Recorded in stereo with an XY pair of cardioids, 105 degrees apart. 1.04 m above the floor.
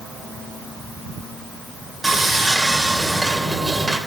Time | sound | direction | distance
2.0 | sawing | 10° right | 2 m